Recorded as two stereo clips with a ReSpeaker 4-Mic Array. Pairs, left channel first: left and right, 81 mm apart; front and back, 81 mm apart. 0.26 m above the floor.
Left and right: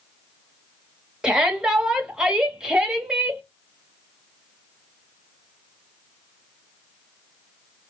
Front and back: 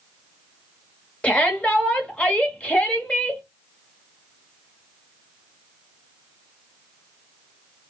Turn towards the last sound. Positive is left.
turn(degrees=-30)